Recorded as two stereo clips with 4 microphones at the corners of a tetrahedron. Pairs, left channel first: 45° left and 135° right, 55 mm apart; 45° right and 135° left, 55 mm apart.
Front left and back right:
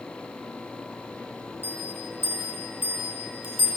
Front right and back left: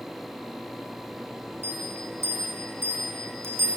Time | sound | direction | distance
1.6 | a bell | straight behind | 5 m